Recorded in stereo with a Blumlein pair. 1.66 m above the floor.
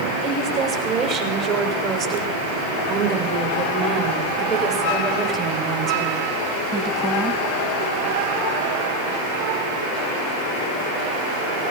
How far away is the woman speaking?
About 6.5 m.